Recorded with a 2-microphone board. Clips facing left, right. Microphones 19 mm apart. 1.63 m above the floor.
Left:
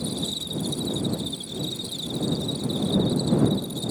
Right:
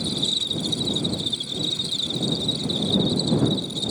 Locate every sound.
0.0 s an insect: 30° right (ahead or behind)